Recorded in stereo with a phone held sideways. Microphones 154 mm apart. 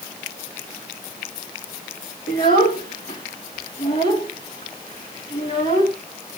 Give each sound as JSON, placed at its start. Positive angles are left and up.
{"t": 2.3, "sound": "a child speaking", "side_deg": 65, "distance_m": 2.0}